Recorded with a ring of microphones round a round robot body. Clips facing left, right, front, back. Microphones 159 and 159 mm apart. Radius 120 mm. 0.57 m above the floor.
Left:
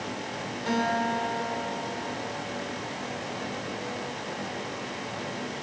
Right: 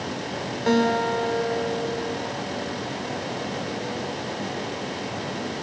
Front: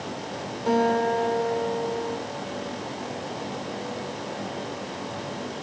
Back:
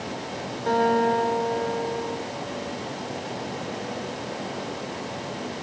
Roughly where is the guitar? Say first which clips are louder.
Right 7 dB, back 1 dB; right.